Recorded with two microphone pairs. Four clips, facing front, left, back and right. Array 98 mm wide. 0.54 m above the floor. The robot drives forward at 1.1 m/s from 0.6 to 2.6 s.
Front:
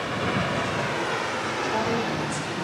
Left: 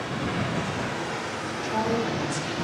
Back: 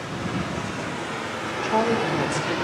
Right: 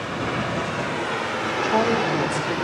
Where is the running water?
35° right, 1.7 m; by 2.6 s 135° right, 1.4 m.